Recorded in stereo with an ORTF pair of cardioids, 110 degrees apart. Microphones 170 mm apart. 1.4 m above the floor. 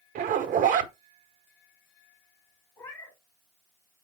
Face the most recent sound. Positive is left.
turn(degrees=20)